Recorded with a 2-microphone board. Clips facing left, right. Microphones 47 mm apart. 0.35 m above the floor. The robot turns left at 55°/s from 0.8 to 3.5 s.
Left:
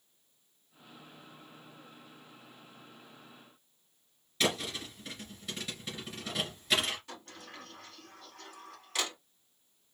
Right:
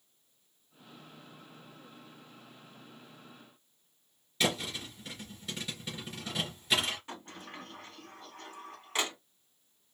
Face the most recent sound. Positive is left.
turn(degrees=-25)  # may be behind; listen again after turning